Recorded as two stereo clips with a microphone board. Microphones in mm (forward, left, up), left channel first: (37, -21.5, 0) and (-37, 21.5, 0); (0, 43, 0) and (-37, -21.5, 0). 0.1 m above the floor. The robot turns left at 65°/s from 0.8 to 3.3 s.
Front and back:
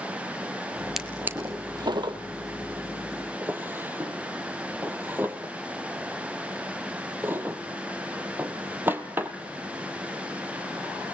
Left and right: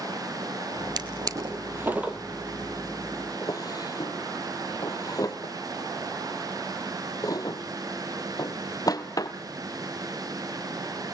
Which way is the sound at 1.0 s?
125° right.